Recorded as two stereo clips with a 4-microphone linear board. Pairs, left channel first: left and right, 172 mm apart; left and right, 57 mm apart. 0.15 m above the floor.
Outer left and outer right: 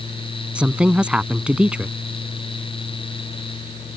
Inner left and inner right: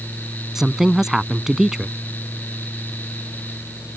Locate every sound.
0.6 s a woman speaking: 5° right (ahead or behind)